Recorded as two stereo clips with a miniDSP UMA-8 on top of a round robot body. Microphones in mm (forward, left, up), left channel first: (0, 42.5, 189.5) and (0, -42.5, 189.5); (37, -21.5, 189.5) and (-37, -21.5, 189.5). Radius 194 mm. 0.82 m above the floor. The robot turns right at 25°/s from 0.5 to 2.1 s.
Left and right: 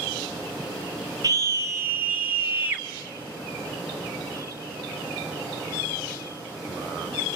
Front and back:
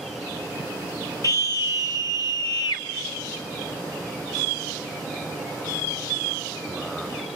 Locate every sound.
1.2 s a scream: 45° right, 1.5 m; by 2.9 s 20° right, 1.5 m